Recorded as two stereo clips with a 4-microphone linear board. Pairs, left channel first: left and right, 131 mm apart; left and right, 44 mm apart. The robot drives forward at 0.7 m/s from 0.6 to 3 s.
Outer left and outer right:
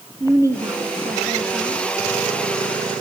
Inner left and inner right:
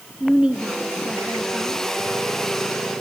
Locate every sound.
0.2 s a woman speaking: 25° right (ahead or behind), 1.7 m; by 1.9 s 15° right (ahead or behind), 2.5 m